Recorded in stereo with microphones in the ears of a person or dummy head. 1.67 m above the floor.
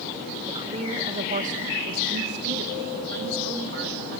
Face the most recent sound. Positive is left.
turn(degrees=-80)